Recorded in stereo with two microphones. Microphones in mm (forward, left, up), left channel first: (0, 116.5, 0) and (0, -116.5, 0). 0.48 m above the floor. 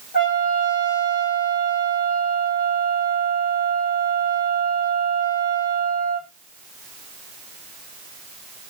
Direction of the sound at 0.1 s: 35° left (ahead or behind).